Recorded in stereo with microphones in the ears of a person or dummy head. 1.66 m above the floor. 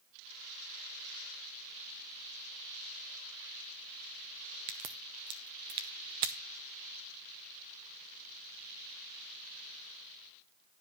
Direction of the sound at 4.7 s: 25° right (ahead or behind).